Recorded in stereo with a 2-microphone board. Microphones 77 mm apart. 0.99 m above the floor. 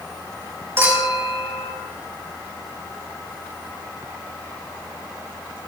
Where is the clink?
30° right (ahead or behind), 5.5 m.